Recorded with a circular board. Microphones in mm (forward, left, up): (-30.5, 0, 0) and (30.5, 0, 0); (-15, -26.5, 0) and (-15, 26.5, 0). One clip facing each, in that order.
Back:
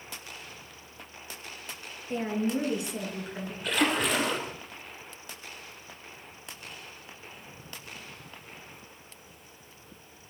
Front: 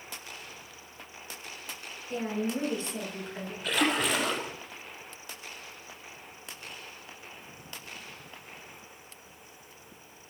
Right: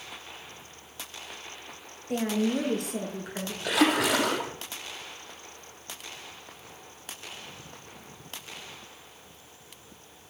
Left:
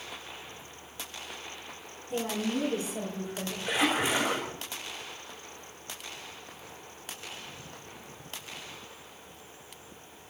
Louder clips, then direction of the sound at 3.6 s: Back 1 dB, right 4 dB; 95° right.